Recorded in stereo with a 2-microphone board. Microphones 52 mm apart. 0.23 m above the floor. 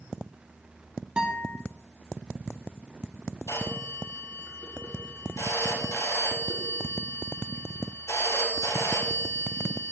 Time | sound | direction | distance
1.2 | a guitar | 20° right (ahead or behind) | 1.8 m
3.5 | a phone ringing | 80° left | 4 m